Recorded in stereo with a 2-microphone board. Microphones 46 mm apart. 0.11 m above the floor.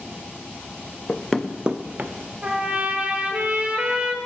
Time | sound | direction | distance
1.1 | running footsteps | 30° left (ahead or behind) | 0.5 m
2.4 | a trumpet | 25° right (ahead or behind) | 0.9 m